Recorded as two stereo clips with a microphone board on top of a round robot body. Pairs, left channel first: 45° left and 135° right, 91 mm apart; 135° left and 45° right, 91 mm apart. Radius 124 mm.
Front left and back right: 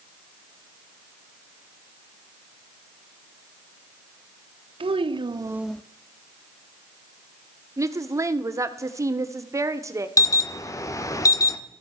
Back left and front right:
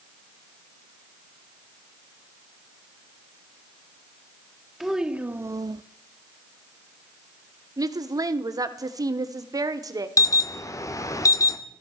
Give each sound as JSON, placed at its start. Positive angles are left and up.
{"t": 4.8, "sound": "a child speaking", "azimuth_deg": -135, "distance_m": 1.4}
{"t": 7.8, "sound": "a woman speaking", "azimuth_deg": -85, "distance_m": 1.4}
{"t": 10.2, "sound": "an alarm", "azimuth_deg": 90, "distance_m": 1.3}